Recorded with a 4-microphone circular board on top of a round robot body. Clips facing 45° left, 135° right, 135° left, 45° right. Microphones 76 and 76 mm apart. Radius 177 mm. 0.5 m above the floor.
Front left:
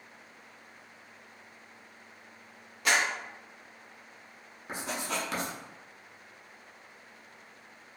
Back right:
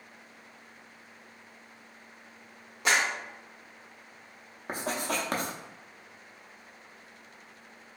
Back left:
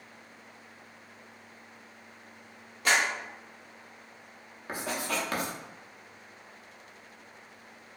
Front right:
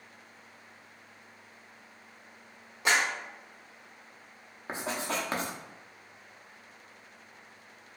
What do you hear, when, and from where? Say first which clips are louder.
2.9 s a clap: back right 1 dB, back left 1 dB; 95° right, 1.1 m
4.7 s writing: back right 3 dB, even; 105° right, 0.6 m